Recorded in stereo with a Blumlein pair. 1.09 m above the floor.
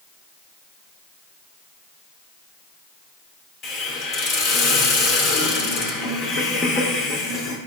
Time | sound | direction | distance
3.6 | a hiss | 25° left | 0.7 m